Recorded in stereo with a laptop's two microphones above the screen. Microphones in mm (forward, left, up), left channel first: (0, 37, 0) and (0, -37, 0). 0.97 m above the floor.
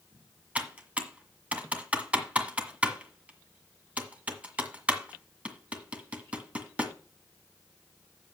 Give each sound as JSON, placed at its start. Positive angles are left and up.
{"t": 0.6, "sound": "typing on a keyboard", "side_deg": -20, "distance_m": 1.5}